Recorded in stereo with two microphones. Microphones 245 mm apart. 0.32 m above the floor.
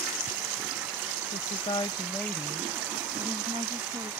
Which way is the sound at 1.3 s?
30° left (ahead or behind).